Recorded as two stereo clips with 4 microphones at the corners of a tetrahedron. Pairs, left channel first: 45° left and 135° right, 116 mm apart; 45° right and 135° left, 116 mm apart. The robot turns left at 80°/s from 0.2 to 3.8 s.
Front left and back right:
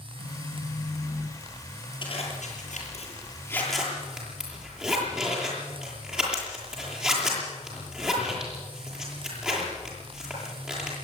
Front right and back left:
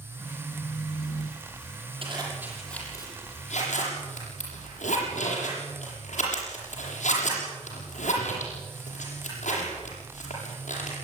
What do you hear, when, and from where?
0.2 s a phone buzzing: 40° left, 2.5 m; by 1.9 s 95° right, 2.5 m
2.0 s a zipper: 90° left, 8 m; by 10.9 s 50° right, 8 m